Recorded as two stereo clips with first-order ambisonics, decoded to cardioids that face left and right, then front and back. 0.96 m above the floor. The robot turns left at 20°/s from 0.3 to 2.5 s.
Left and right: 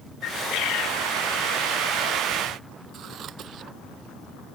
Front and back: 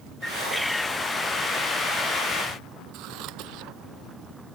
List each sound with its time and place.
0.2 s a bird: 90° left; by 1.0 s 75° left
2.9 s scissors: 145° right